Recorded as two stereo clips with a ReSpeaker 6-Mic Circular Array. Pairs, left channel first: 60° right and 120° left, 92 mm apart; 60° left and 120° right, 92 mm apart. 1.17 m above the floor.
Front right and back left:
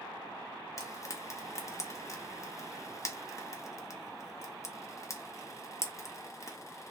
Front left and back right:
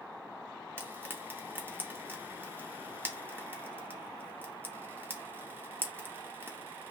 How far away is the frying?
About 0.6 m.